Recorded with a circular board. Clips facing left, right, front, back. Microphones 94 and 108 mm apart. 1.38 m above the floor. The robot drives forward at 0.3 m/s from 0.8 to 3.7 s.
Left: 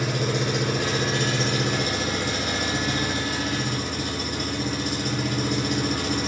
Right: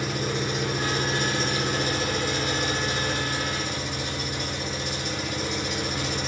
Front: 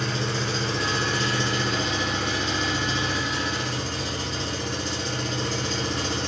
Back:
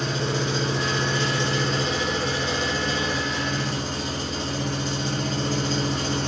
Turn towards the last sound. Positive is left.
turn(degrees=135)